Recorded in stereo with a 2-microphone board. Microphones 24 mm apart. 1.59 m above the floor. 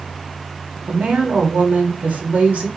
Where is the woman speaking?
80° right, 1.9 m.